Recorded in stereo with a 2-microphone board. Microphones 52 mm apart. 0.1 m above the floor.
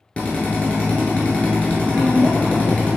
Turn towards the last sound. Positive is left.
turn(degrees=-30)  # may be behind; listen again after turning